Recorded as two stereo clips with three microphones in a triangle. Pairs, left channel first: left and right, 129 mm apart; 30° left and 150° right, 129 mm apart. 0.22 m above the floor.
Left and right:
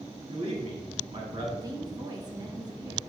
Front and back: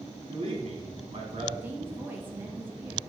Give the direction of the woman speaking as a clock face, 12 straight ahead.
3 o'clock.